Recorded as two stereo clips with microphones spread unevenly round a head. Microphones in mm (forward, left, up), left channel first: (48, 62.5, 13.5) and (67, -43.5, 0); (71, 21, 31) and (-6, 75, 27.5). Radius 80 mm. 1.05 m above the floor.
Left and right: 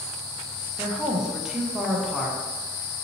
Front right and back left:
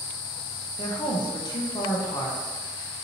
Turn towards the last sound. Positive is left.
turn(degrees=0)